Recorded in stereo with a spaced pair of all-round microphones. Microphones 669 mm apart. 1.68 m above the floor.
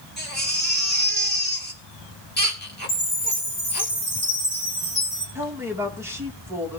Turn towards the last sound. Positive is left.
turn(degrees=-5)  # may be behind; listen again after turning